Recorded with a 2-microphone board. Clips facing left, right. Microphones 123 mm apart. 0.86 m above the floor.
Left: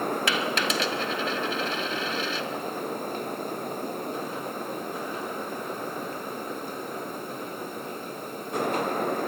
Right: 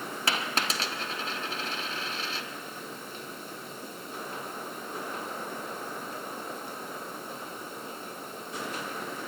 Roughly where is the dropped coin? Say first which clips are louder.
Left 5 dB; right.